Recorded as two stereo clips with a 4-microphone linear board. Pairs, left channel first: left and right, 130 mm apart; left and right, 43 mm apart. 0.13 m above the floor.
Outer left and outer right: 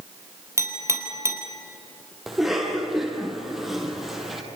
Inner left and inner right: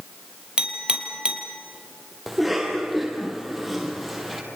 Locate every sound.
0.6 s a clink: 20° right (ahead or behind), 3 m
2.3 s a cough: 5° right (ahead or behind), 5.5 m